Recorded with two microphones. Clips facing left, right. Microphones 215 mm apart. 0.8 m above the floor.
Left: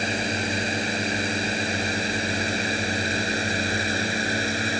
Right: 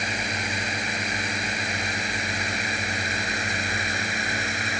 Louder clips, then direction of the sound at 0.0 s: Left 5 dB; 30° left (ahead or behind).